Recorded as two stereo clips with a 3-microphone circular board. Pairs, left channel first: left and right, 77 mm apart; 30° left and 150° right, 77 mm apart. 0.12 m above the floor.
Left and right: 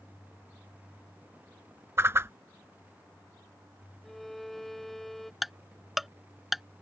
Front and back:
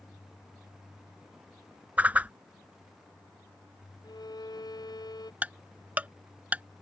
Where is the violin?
5° left.